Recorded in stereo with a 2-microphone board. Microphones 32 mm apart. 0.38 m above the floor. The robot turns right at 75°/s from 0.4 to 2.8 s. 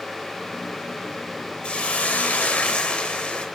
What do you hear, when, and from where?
1.6 s a hiss: 45° left, 0.7 m; by 3.5 s 130° left, 0.7 m